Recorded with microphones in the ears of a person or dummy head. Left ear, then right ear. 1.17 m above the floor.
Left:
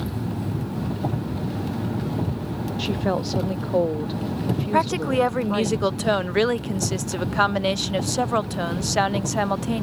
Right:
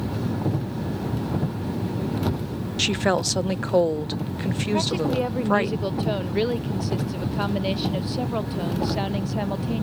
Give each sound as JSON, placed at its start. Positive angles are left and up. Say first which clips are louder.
{"t": 2.8, "sound": "a woman speaking", "louder": "right 4 dB", "side_deg": -45}
{"t": 4.7, "sound": "a woman speaking", "louder": "left 4 dB", "side_deg": 50}